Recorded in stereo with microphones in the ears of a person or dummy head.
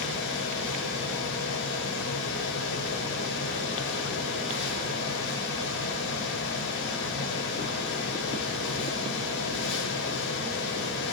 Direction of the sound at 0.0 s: 60° left (ahead or behind).